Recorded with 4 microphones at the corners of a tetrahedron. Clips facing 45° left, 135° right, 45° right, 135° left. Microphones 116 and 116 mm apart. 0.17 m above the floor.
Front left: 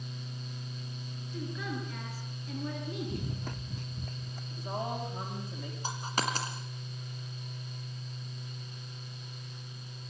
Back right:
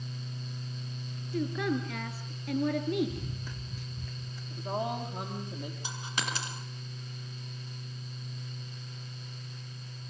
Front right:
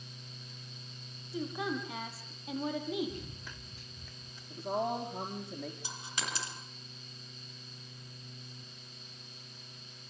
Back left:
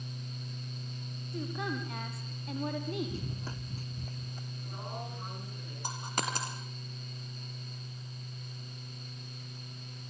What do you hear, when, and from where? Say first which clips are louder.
1.3 s a woman speaking: back right 8 dB, front right 1 dB; 130° right, 4 m
3.1 s running footsteps: front left 3 dB, back left 5 dB; 75° left, 1.2 m; by 4.4 s 90° left, 2.5 m
4.5 s a woman speaking: back right 3 dB, front right 12 dB; 60° right, 5.5 m
5.8 s a dropped coin: front left 6 dB, back left 5 dB; 95° left, 5 m